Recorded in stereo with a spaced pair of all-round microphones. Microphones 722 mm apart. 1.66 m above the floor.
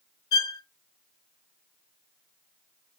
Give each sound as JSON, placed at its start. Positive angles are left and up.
{"t": 0.3, "sound": "a violin", "side_deg": 45, "distance_m": 1.6}